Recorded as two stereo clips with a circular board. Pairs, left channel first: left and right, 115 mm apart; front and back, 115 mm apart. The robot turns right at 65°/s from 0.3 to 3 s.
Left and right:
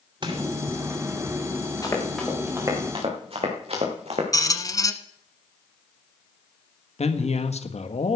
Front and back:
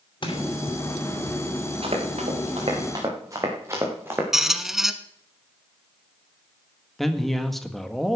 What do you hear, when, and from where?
0.2 s crushing: 45° right, 2.5 m; by 0.4 s 35° right, 2.5 m
1.8 s running footsteps: 150° left, 4.5 m; by 4.2 s 110° right, 3.5 m
4.3 s a squeak: 95° left, 1.0 m
7.0 s a man speaking: 90° left, 1.6 m